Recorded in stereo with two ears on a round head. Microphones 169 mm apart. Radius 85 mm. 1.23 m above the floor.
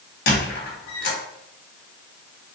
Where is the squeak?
55° left (ahead or behind), 1.0 m.